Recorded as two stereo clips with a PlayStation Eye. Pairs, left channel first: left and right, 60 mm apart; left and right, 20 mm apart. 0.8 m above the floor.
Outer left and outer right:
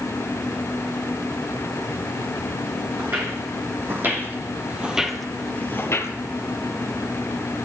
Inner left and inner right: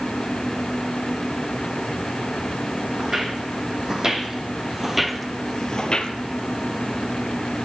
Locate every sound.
3.0 s footsteps: 45° right (ahead or behind), 3.5 m; by 6.1 s 55° left (ahead or behind), 1.3 m